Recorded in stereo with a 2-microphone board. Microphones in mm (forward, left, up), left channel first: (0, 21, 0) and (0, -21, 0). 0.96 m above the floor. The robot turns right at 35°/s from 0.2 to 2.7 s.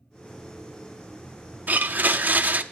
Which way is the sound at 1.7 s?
100° right.